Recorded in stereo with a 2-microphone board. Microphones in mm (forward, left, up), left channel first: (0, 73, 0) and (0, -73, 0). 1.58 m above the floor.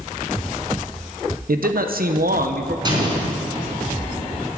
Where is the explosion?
30° right (ahead or behind), 3 m.